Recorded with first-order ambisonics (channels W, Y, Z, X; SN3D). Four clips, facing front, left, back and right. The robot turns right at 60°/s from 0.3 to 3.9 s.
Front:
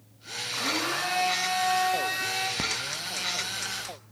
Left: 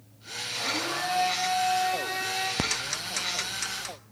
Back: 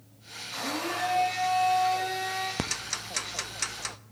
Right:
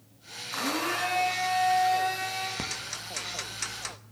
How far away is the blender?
About 5.5 m.